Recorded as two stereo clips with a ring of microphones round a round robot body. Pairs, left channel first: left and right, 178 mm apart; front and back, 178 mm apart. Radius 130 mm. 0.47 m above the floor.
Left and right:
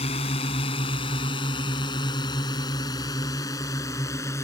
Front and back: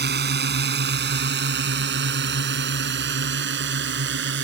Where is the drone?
155° left; by 4.4 s 170° left.